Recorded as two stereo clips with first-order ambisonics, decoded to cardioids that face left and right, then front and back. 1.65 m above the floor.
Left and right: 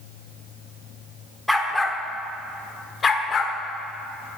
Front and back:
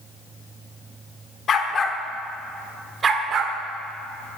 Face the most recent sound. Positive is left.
turn(degrees=145)